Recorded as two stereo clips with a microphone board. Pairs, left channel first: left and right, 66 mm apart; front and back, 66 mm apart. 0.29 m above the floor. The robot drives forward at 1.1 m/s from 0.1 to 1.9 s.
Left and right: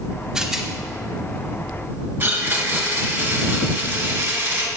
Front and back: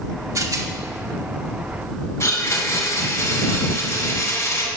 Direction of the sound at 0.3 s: 170° right.